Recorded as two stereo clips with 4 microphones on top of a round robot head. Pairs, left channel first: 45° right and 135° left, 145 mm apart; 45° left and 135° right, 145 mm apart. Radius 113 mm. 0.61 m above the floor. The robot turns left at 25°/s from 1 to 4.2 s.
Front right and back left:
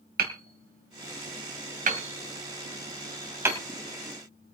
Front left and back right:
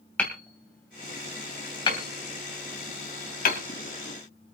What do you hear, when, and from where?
0.2 s hammering: 125° left, 3 m; by 3.6 s 60° left, 3 m